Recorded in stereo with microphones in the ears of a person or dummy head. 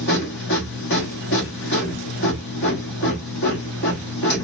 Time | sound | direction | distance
0.0 | a machine running | 60° left (ahead or behind) | 1.2 m